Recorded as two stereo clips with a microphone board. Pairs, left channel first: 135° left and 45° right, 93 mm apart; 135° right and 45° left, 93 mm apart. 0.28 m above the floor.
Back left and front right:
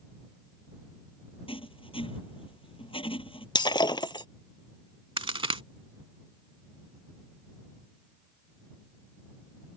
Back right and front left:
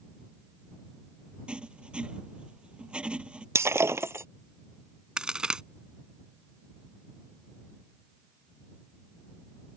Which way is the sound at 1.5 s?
125° left.